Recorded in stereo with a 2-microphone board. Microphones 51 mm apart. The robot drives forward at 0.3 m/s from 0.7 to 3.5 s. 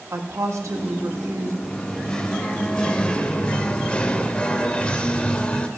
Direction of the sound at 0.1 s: 80° right.